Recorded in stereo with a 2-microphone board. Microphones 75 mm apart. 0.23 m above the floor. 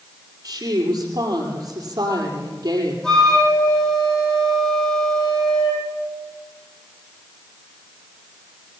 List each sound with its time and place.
0.4 s a woman speaking: 55° right (ahead or behind), 7 m
3.0 s a flute: 10° left (ahead or behind), 7.5 m